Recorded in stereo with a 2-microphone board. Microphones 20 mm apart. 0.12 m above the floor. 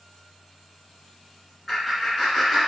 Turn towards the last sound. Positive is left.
turn(degrees=20)  # may be behind; listen again after turning